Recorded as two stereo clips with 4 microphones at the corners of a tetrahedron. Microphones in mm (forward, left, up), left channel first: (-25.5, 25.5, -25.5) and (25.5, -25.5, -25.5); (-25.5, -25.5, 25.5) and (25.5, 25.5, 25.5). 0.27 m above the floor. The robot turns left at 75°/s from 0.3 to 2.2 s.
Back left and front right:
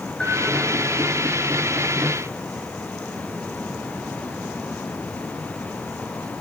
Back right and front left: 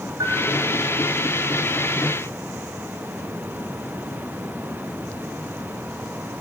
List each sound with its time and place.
0.2 s a bell: 60° left, 4.5 m; by 0.4 s 50° left, 4.5 m